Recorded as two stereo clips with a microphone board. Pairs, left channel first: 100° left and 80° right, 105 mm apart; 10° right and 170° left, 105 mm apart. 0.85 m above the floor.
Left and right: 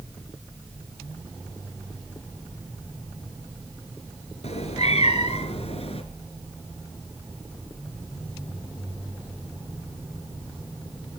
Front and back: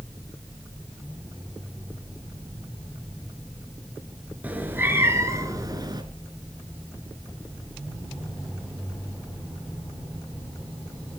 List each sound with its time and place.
4.4 s a cat meowing: 95° left, 3.5 m; by 6.0 s 120° left, 3.5 m